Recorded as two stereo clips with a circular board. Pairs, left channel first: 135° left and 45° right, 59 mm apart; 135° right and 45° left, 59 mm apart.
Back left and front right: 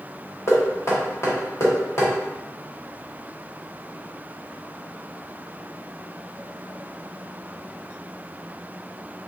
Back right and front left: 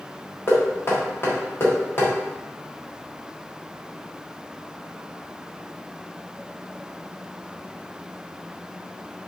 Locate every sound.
0.5 s knocking: 175° left, 1.2 m